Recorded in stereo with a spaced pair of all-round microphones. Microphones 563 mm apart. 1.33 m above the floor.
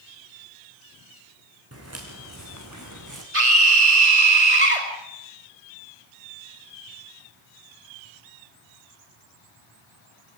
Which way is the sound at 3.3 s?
75° right (ahead or behind).